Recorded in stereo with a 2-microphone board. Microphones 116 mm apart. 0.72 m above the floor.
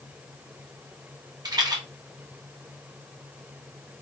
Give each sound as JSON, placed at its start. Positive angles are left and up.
{"t": 1.4, "sound": "a rattle", "side_deg": -35, "distance_m": 1.2}